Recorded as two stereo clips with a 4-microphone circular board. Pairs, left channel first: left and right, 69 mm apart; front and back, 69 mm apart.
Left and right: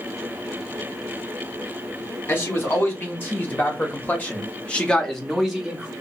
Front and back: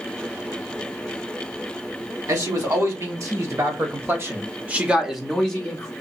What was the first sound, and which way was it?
A man speaking, 150° left.